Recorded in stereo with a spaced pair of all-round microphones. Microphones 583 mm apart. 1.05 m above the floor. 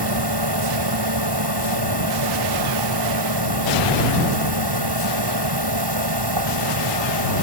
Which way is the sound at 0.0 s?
45° right (ahead or behind).